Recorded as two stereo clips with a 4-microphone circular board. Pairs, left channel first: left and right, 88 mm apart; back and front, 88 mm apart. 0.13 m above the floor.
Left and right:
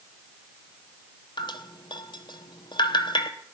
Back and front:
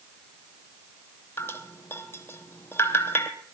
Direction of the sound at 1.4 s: 115° left.